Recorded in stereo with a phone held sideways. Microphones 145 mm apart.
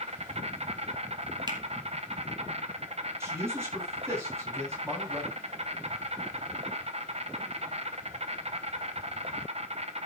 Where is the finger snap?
30° right (ahead or behind), 2.0 m.